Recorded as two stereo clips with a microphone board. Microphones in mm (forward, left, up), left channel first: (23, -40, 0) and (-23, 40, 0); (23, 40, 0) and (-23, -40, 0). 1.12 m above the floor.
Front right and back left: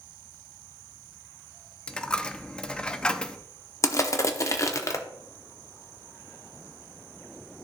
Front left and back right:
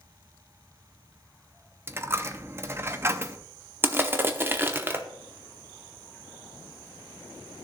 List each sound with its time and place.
1.9 s a dropped coin: 125° right, 0.5 m
3.8 s crushing: 75° right, 0.8 m